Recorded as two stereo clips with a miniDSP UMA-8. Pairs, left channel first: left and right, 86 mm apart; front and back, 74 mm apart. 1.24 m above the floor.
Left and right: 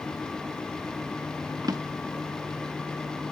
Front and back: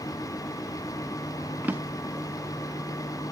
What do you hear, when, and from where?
1.6 s a drawer: 120° right, 0.8 m